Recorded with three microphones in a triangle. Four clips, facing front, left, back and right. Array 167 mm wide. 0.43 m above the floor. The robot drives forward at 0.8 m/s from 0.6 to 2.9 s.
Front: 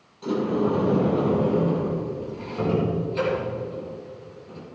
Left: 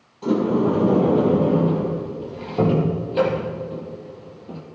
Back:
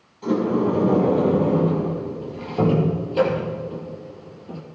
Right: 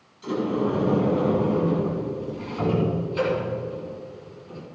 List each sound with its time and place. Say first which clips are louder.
0.2 s a sliding door: left 5 dB, back 3 dB; 100° left, 3 m; by 4.6 s 125° left, 4 m